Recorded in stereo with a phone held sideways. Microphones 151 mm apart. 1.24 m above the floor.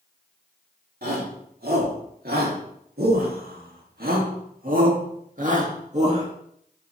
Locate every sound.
1.0 s a shout: 75° right (ahead or behind), 4 m; by 6.3 s 40° right (ahead or behind), 2.5 m